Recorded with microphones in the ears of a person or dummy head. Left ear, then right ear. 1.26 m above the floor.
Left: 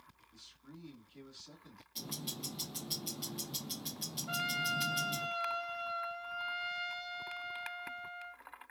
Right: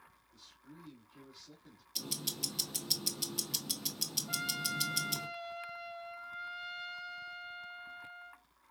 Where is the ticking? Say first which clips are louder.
Right 5 dB; 25° right (ahead or behind), 1.0 m.